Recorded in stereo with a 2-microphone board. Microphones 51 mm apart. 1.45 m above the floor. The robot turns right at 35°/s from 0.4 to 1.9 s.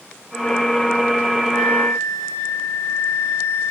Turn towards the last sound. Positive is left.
turn(degrees=50)  # may be behind; listen again after turning